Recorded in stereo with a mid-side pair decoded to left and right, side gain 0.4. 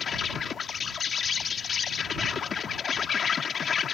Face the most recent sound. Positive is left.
turn(degrees=55)